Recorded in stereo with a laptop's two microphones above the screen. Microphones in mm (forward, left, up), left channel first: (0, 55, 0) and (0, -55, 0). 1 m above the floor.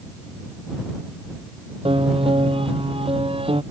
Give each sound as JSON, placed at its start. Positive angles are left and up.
{"t": 1.9, "sound": "a piano", "side_deg": -55}